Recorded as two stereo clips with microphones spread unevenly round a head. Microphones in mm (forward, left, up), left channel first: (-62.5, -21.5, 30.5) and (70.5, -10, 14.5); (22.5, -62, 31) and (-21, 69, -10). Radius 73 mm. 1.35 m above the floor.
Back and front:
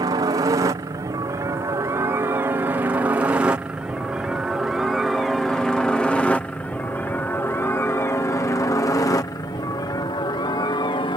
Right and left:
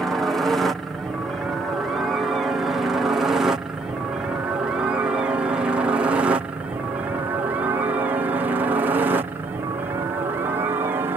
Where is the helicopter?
35° left; by 11.2 s 145° left.